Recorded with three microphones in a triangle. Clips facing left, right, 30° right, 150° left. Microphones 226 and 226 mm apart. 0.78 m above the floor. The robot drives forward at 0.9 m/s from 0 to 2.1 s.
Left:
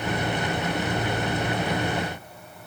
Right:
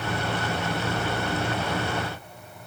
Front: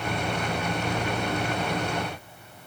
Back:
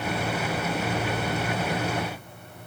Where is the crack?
I don't hear a crack.